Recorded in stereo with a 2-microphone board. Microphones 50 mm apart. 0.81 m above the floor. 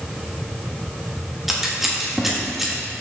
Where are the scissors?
5° right (ahead or behind), 1.5 m.